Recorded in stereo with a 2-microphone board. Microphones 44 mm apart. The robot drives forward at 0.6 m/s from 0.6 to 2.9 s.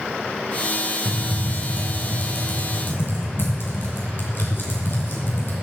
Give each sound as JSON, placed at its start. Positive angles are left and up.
{"t": 1.1, "sound": "typing on a keyboard", "side_deg": 40, "distance_m": 3.5}